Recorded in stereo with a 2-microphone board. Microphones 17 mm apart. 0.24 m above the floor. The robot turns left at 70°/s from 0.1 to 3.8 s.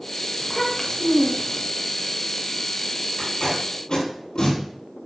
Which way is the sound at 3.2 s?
50° left (ahead or behind).